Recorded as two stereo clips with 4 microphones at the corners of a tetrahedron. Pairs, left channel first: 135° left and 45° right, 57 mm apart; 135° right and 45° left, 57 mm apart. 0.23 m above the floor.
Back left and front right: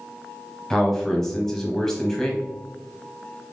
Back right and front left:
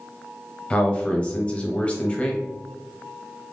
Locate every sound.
0.7 s a man speaking: 160° right, 1.0 m